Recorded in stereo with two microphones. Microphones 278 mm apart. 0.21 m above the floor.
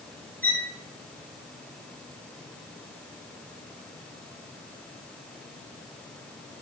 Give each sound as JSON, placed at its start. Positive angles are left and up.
{"t": 0.4, "sound": "a violin", "side_deg": -30, "distance_m": 1.2}